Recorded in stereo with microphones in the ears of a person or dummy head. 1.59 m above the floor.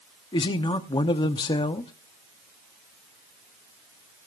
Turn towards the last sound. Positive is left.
turn(degrees=20)  # may be behind; listen again after turning